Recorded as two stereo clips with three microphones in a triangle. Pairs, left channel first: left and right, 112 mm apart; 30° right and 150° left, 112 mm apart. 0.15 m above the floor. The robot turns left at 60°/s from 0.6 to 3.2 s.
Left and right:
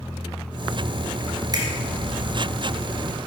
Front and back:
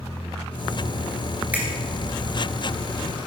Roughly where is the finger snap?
Behind right.